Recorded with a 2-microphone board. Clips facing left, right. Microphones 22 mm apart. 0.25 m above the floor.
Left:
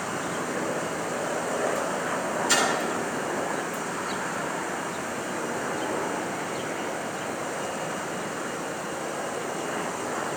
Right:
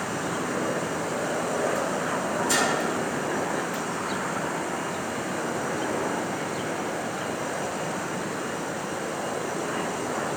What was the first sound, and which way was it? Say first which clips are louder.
A splash: left 1 dB; 20° left (ahead or behind).